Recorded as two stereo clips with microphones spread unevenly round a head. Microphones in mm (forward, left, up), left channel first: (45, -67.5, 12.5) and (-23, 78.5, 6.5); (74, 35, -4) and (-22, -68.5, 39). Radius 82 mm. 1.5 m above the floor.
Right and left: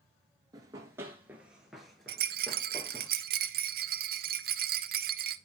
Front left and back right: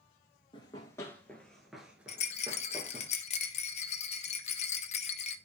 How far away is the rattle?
About 0.6 m.